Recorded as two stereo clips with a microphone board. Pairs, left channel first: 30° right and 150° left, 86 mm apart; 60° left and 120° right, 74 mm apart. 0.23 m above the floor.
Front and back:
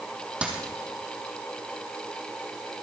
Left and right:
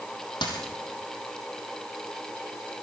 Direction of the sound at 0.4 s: 75° left.